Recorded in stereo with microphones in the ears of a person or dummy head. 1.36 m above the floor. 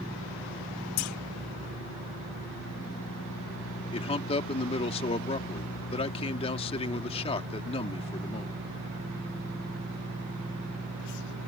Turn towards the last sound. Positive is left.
turn(degrees=35)  # may be behind; listen again after turning